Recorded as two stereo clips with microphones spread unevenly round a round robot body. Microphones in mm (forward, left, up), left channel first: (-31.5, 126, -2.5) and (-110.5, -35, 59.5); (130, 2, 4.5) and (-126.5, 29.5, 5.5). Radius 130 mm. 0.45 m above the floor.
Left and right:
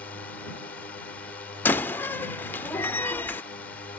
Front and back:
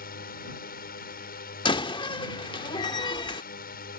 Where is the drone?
15° left.